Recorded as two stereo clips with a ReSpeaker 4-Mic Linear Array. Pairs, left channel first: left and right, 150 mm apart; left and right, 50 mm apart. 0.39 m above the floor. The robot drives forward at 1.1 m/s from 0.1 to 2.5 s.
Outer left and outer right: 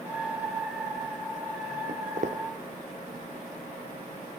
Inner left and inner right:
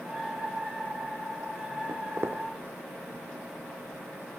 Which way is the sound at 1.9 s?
65° right (ahead or behind).